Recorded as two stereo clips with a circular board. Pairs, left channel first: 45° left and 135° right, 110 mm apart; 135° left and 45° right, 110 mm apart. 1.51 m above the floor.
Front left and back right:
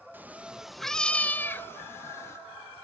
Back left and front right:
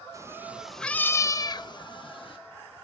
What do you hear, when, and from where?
0.1 s a cat meowing: 75° right, 0.8 m; by 2.4 s 105° left, 1.4 m